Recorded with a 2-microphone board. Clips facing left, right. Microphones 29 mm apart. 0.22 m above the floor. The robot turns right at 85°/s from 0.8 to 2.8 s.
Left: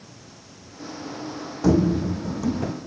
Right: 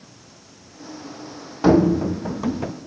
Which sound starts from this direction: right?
Running footsteps, at 1.6 s.